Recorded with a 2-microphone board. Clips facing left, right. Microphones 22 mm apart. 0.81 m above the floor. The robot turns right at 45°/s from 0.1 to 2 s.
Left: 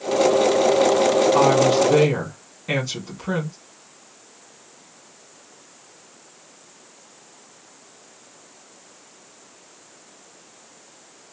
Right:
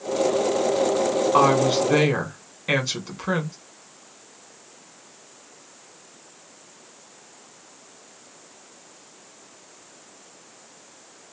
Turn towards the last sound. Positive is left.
turn(degrees=-30)  # may be behind; listen again after turning